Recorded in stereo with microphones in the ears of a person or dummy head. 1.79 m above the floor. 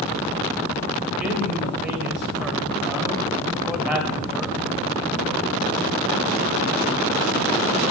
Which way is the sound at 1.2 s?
5° right (ahead or behind).